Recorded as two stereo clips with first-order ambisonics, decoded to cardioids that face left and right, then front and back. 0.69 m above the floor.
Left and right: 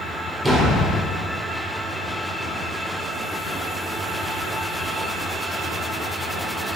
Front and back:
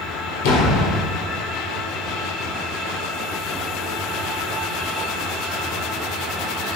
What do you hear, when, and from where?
0.4 s a door slam: 5° right, 1.3 m